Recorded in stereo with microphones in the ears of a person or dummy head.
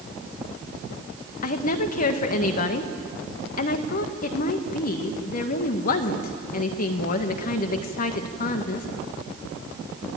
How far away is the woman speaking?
About 1.6 m.